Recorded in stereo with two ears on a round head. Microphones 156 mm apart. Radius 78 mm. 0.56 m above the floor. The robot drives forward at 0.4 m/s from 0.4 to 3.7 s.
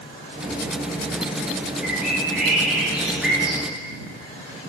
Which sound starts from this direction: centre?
A bird, at 1.8 s.